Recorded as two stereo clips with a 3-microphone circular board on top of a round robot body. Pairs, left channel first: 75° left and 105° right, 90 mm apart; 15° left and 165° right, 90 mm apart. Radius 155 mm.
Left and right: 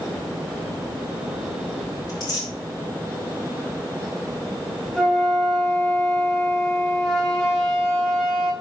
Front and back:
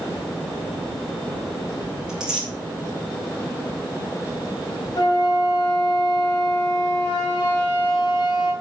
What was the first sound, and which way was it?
Tearing paper, 115° left.